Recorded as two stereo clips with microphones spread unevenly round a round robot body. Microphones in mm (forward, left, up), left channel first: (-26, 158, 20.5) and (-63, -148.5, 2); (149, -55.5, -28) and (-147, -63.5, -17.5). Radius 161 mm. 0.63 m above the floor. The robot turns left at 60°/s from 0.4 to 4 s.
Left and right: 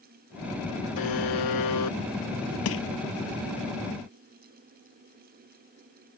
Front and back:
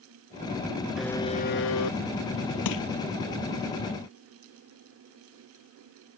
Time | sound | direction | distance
1.0 | a buzzer | 95° left | ?
2.6 | crushing | 40° left | ?